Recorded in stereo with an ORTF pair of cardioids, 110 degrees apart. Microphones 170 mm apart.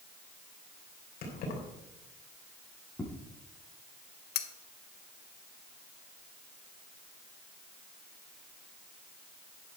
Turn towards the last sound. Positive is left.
turn(degrees=70)